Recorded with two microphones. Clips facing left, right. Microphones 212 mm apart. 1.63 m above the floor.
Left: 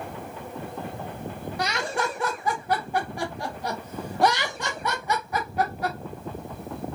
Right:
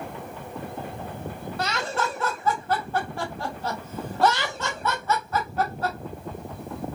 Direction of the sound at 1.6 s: 15° left (ahead or behind).